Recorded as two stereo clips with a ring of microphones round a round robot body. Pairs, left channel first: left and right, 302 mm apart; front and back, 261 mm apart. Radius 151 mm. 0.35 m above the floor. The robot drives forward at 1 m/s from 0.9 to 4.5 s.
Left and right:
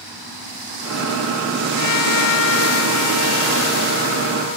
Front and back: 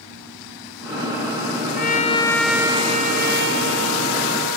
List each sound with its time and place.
1.8 s a trumpet: 55° left; by 4.6 s 155° left